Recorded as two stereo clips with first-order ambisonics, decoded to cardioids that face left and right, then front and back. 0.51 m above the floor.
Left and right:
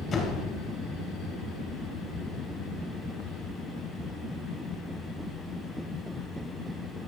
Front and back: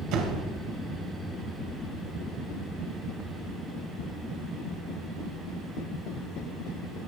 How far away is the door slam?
About 2 m.